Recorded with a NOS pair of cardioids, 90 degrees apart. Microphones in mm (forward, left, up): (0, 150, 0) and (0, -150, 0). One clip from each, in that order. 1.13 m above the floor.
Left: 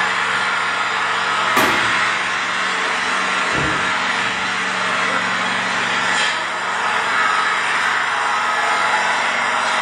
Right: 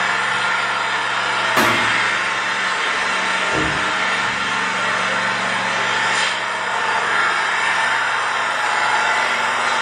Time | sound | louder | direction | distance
0.0 | an engine running | even | 5° left | 1.0 m
1.6 | a thud | even | 25° left | 1.8 m
3.5 | knocking | even | 5° right | 0.8 m